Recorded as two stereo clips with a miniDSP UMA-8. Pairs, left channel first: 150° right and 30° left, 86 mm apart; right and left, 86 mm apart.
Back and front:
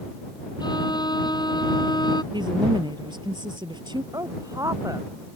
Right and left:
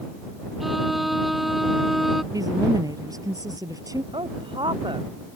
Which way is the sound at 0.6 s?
Straight behind.